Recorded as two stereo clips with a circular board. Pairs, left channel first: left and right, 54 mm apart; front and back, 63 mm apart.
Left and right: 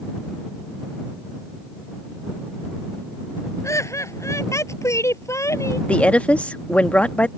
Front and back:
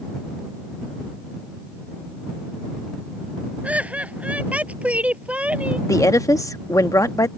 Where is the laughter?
115° left; by 5.8 s 110° left.